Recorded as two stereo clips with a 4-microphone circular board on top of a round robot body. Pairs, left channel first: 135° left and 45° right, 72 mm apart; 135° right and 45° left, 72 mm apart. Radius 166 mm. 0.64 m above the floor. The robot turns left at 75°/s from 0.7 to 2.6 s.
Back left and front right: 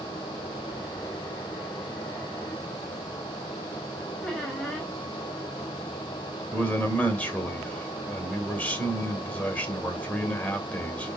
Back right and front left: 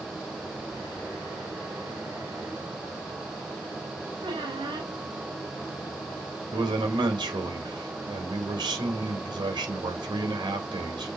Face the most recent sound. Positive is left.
turn(degrees=65)